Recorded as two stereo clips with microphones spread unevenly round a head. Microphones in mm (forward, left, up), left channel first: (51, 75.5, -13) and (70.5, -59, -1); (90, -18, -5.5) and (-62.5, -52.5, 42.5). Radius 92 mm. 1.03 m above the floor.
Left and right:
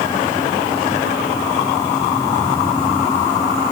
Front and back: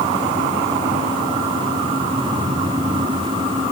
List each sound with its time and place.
Only background noise.